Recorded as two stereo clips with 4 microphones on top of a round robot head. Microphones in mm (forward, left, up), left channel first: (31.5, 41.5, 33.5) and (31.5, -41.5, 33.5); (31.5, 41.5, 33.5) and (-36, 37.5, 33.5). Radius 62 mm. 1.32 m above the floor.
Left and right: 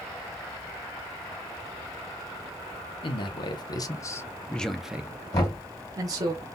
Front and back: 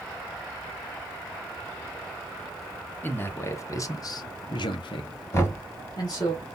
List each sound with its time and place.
3.0 s a man speaking: 65° left, 1.1 m; by 6.3 s 50° right, 1.2 m
5.3 s knocking: 50° left, 2 m